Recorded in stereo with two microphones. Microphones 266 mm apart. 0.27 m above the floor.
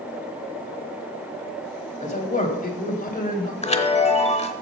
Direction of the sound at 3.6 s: 25° left (ahead or behind).